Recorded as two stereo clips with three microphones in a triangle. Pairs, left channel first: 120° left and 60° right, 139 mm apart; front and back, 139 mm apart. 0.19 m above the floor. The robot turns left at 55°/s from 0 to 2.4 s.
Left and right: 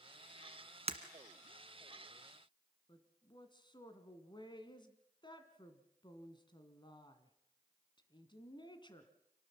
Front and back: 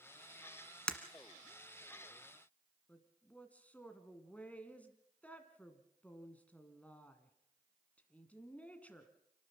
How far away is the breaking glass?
About 1.4 m.